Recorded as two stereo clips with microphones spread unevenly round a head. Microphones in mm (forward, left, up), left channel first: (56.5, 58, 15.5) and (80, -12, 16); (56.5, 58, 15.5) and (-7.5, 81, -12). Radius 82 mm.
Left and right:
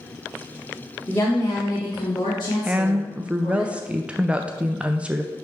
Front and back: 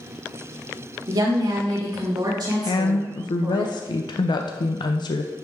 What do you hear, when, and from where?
1.1 s a woman speaking: 175° left, 1.7 m; by 3.6 s 145° left, 2.5 m
2.6 s a woman speaking: 5° left, 0.5 m